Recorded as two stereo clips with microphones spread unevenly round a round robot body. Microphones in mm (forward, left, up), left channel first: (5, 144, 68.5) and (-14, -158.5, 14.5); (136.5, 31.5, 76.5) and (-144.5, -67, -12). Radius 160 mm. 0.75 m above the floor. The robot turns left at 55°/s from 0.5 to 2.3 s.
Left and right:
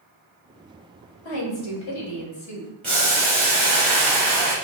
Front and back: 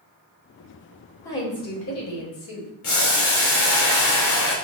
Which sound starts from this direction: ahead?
Boiling, at 2.8 s.